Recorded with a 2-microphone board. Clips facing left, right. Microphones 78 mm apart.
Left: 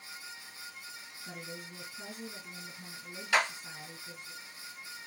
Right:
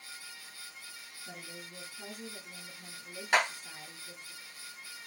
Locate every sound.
1.2 s a woman speaking: 25° left (ahead or behind), 1.6 m
3.3 s a clap: 35° right (ahead or behind), 1.9 m